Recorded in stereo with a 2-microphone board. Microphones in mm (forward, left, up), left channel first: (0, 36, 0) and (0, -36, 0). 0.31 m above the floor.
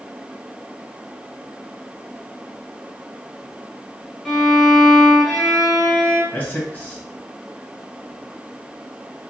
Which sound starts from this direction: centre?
A violin, at 4.2 s.